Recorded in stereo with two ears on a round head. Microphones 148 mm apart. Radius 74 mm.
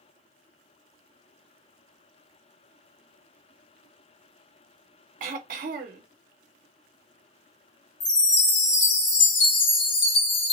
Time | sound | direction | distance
5.2 | throat clearing | 50° right (ahead or behind) | 0.8 m
8.0 | a chime | 75° left (ahead or behind) | 1.7 m